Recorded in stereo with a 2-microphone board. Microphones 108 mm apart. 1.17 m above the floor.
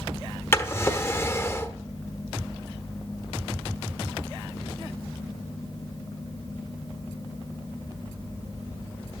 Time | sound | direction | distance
0.5 | a drawer | 20° left (ahead or behind) | 1.0 m